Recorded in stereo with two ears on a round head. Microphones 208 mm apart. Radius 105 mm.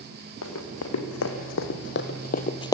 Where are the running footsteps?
75° left (ahead or behind), 4 m; by 2.7 s 15° left (ahead or behind), 1.3 m.